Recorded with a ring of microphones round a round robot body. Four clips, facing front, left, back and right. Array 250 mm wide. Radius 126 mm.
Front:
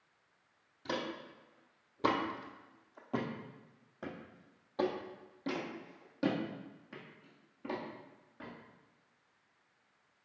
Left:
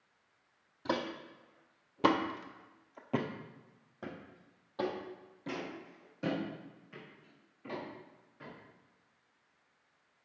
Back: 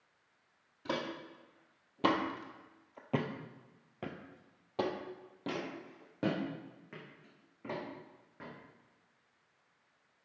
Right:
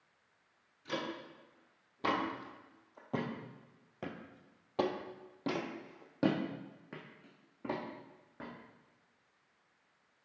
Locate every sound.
0.8 s footsteps: 100° left, 1.6 m; by 8.5 s 100° right, 2.5 m